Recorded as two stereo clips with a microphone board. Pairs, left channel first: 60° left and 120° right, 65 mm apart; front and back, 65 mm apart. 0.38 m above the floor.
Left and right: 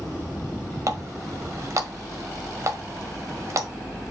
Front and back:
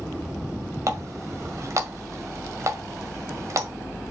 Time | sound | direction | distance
0.9 | a running tap | 150° right | 1.4 m